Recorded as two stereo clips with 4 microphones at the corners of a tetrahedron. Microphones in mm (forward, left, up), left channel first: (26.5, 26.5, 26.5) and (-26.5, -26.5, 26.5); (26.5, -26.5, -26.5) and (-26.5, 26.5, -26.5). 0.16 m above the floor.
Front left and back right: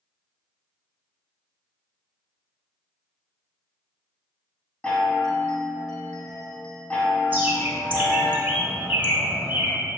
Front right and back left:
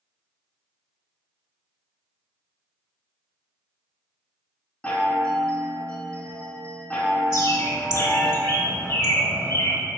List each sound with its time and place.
4.8 s a chime: 5° right, 0.8 m
7.3 s a bird: 75° right, 0.7 m